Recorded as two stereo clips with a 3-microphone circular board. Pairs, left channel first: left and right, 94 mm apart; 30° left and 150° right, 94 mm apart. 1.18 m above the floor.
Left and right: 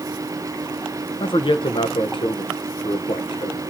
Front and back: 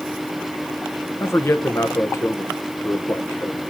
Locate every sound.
1.2 s a man speaking: 90° left, 1.0 m